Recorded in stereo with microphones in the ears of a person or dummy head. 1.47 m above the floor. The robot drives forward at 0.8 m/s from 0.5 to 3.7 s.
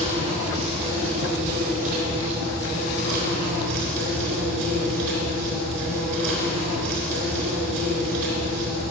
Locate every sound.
0.0 s an insect: 40° right (ahead or behind), 5 m; by 8.9 s 70° right (ahead or behind), 3.5 m